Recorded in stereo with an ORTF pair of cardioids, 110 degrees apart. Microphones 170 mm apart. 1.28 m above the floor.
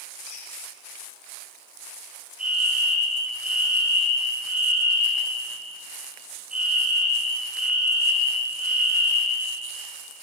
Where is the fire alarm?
5° right, 6 m.